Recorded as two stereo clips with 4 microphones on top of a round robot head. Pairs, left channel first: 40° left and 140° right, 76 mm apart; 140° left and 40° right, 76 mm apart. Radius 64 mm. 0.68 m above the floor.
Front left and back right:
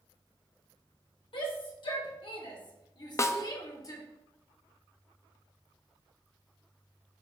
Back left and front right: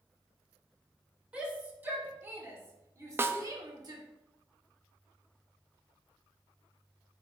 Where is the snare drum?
5° left, 0.6 m.